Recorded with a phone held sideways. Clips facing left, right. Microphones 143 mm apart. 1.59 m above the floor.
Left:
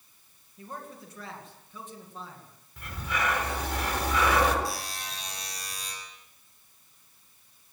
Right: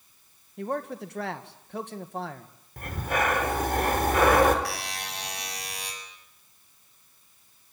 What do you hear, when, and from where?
0.6 s a man speaking: 75° right (ahead or behind), 2 m
2.8 s breathing: 50° right (ahead or behind), 4 m
4.7 s a buzzer: 75° right (ahead or behind), 7 m